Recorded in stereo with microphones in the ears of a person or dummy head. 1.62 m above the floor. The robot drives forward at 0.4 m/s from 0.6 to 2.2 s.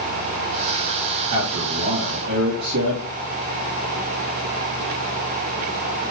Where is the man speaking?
75° right (ahead or behind), 2.5 m; by 3.1 s 65° right (ahead or behind), 2.5 m.